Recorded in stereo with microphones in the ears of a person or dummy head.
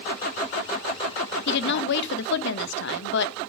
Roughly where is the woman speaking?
Left.